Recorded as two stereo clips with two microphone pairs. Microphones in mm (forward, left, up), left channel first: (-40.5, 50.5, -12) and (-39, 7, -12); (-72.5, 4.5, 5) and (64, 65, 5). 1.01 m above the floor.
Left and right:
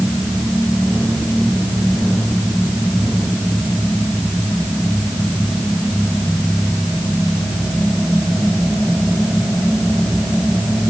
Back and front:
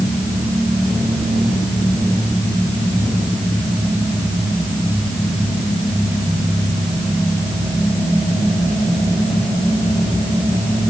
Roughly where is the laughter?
No laughter in this recording.